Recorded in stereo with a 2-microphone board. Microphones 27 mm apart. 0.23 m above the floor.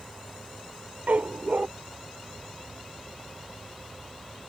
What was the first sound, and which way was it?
A dog barking, 70° right (ahead or behind).